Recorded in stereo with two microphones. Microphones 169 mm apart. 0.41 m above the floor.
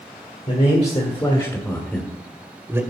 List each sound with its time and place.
0.5 s a man speaking: 45° left (ahead or behind), 1.7 m; by 2.8 s 15° right (ahead or behind), 1.3 m